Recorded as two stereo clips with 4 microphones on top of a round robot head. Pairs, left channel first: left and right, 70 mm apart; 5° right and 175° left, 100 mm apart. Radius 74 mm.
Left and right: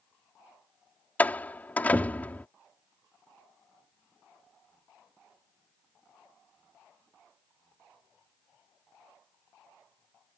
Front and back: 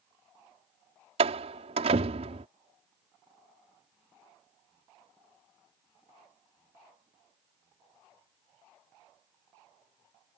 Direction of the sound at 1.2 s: 155° left.